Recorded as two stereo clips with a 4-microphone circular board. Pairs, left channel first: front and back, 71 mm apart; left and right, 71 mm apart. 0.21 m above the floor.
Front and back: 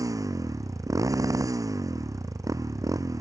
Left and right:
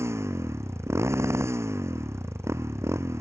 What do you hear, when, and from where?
0.0 s a motorcycle: 140° right